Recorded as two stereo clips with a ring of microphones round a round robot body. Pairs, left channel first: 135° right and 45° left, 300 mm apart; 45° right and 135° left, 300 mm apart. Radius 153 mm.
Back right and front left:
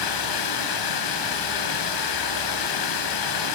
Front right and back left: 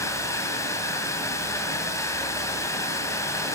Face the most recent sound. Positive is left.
turn(degrees=-125)